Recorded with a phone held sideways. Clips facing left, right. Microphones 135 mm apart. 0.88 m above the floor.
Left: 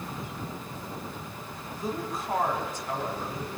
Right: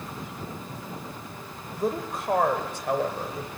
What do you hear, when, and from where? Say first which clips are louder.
1.7 s a woman speaking: right 5 dB; 65° right (ahead or behind), 3.5 m; by 3.5 s 70° right (ahead or behind), 4.5 m